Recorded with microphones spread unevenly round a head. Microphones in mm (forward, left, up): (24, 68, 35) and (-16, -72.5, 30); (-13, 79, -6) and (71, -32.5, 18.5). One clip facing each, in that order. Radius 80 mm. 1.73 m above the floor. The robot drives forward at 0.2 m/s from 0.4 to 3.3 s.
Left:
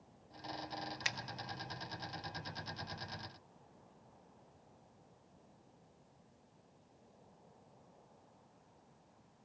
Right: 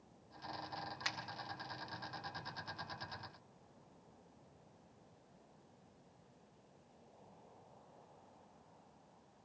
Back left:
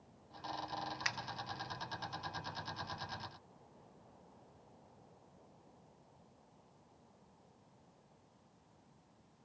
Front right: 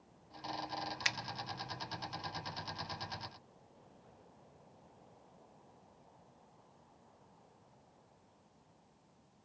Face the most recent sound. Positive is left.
turn(degrees=50)